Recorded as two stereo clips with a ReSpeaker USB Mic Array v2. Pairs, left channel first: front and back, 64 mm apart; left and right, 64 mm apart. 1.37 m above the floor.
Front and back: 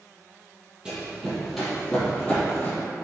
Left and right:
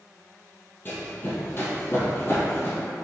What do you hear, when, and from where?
0.8 s running footsteps: 110° left, 1.7 m; by 2.8 s 50° left, 2.0 m